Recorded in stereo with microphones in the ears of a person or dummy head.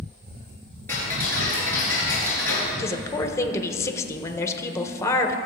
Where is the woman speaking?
15° left (ahead or behind), 1.0 m.